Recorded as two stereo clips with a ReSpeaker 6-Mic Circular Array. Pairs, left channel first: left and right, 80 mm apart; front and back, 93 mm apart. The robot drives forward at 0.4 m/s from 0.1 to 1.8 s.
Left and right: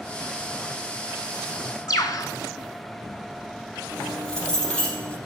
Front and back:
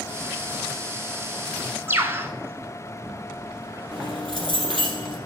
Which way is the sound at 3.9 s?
170° left.